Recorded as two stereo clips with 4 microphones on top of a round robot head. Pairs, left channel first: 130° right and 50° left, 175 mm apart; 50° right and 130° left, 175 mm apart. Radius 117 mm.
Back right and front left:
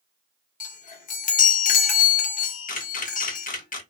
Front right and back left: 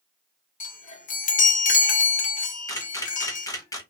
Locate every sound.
0.6 s a chime: 90° right, 0.7 m
2.7 s a camera shutter: 115° right, 0.9 m